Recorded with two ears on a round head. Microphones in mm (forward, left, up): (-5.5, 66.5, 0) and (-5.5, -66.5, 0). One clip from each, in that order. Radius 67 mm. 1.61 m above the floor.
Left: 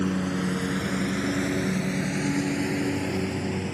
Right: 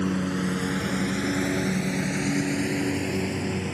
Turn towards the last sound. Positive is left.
turn(degrees=-15)  # may be behind; listen again after turning